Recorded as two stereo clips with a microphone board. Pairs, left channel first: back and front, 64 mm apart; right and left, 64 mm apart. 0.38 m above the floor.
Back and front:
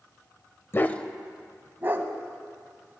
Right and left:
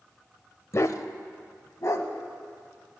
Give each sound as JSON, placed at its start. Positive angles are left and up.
{"t": 0.7, "sound": "a dog barking", "azimuth_deg": -130, "distance_m": 0.5}